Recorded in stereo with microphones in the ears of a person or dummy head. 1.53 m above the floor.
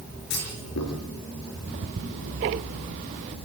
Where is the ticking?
25° right (ahead or behind), 0.5 m.